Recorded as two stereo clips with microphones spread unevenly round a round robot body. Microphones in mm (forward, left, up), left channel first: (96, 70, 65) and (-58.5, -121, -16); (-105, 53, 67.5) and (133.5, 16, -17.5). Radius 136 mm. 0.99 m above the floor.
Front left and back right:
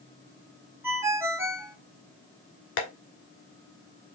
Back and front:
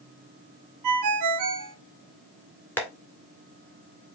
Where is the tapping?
90° left, 1.7 m.